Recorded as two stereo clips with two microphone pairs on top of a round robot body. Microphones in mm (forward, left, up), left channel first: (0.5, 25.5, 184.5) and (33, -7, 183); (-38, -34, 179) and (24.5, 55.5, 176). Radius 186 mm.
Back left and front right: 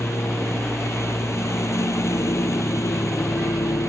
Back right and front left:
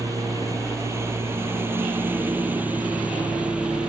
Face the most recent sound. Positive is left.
turn(degrees=140)